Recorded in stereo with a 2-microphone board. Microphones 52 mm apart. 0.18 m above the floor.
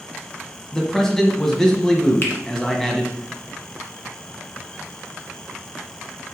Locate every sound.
0.7 s a man speaking: 10° left (ahead or behind), 1.3 m
2.2 s a finger snap: 40° left (ahead or behind), 1.8 m